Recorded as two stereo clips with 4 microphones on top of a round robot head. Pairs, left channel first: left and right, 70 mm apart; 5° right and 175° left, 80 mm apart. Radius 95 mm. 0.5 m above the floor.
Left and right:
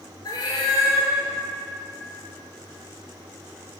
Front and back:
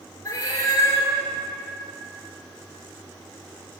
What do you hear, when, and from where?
0.2 s a cat meowing: 50° left, 2.0 m